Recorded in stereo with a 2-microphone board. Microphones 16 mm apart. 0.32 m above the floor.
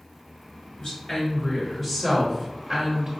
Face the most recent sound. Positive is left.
turn(degrees=-25)  # may be behind; listen again after turning